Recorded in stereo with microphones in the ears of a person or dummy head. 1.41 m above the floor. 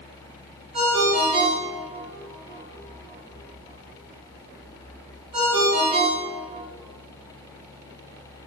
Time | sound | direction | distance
0.7 | a ringtone | 35° right (ahead or behind) | 0.7 m